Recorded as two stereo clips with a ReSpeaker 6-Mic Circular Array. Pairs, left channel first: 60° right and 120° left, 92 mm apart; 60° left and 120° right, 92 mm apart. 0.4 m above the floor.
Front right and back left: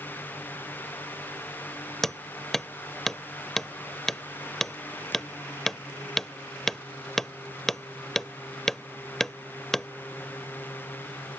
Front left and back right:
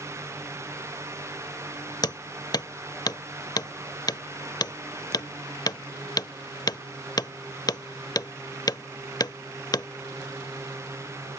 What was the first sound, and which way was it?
Hammering, 25° left.